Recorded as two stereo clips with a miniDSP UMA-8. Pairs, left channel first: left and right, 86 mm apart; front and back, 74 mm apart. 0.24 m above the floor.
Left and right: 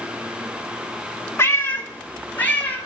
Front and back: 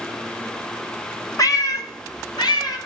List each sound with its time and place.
1.4 s a cat meowing: 30° left, 0.9 m; by 2.8 s 20° left, 2.0 m